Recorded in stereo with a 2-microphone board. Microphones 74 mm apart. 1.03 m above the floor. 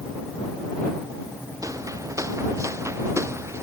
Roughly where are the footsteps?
Right.